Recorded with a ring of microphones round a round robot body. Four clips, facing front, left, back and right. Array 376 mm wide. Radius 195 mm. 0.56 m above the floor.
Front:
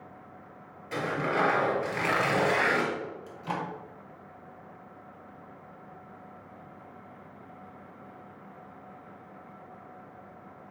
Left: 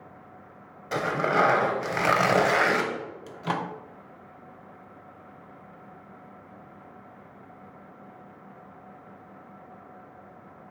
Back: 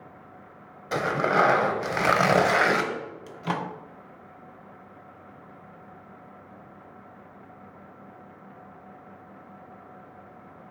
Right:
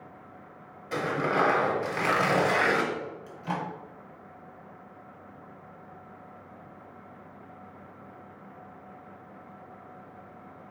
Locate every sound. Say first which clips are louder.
0.9 s tearing paper: left 3 dB, back 6 dB; 155° left, 1.0 m
3.3 s a microwave: left 5 dB, back 6 dB; 130° left, 0.8 m